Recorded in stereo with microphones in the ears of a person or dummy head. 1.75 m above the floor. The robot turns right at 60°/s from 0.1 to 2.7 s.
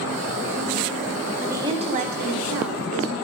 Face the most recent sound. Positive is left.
turn(degrees=-95)